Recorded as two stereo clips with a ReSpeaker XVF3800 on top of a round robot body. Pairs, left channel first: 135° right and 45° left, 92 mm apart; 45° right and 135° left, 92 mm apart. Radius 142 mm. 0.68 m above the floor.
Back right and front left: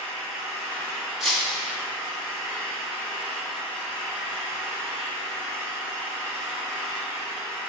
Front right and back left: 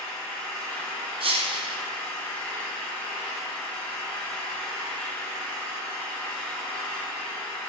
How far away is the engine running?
About 1.9 m.